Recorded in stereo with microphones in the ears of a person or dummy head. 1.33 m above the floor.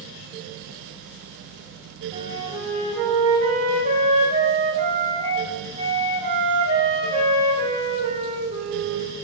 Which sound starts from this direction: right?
A flute, at 2.1 s.